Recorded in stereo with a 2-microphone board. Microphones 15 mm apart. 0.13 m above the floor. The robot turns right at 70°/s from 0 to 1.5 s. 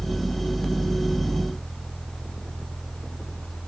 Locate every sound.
Only background noise.